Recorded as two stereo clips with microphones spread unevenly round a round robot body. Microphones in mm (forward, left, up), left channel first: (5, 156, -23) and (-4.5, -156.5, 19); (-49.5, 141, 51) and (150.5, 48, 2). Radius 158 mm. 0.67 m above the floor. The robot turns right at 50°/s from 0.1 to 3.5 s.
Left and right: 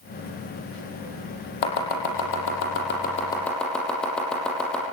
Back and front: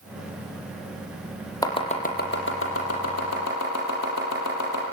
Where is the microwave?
I don't hear a microwave.